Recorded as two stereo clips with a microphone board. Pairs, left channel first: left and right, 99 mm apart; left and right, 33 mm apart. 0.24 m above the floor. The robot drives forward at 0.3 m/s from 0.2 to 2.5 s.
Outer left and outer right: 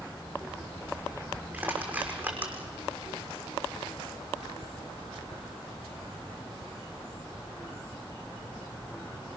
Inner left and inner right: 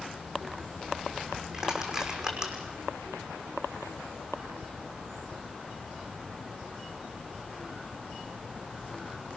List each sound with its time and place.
1.5 s crushing: 20° right (ahead or behind), 6 m